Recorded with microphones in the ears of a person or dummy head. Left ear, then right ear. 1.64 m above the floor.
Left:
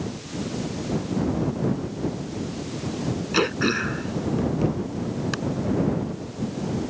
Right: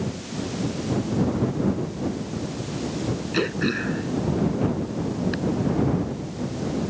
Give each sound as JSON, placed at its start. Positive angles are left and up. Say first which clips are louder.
{"t": 3.3, "sound": "throat clearing", "louder": "left 3 dB", "side_deg": 40}